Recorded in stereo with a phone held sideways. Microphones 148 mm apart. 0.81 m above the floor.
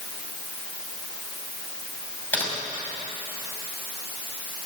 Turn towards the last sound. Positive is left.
turn(degrees=10)  # may be behind; listen again after turning